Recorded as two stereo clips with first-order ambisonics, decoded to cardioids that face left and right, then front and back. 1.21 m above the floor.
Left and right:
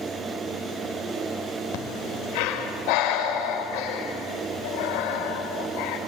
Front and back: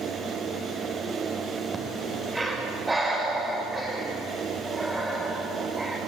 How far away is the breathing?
About 4 m.